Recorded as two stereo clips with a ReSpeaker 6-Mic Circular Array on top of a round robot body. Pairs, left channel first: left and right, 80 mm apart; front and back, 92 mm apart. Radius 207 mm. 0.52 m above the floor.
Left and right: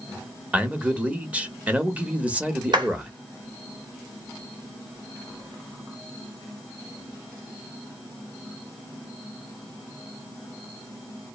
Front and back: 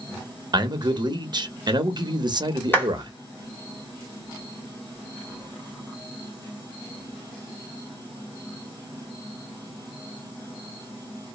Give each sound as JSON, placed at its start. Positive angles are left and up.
{"t": 0.5, "sound": "a man speaking", "azimuth_deg": -160, "distance_m": 0.9}
{"t": 2.7, "sound": "a clap", "azimuth_deg": -70, "distance_m": 1.3}